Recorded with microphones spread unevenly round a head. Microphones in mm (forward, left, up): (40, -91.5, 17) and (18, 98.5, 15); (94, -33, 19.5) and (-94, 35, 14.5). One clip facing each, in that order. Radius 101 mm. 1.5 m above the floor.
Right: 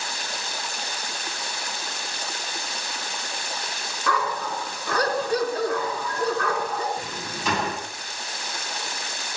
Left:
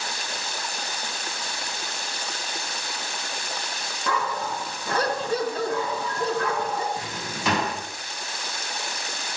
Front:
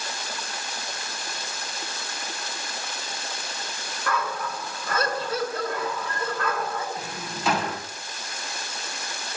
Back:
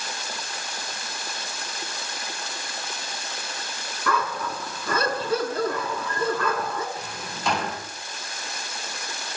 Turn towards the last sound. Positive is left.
turn(degrees=65)